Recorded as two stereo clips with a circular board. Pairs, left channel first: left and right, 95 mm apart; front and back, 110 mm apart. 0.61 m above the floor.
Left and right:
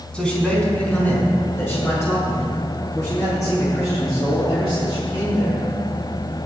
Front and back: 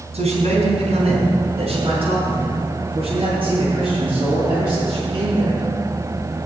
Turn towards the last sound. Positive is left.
turn(degrees=140)